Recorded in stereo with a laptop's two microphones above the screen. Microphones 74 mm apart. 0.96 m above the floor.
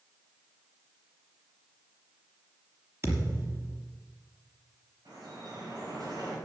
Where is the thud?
40° right (ahead or behind), 5 m.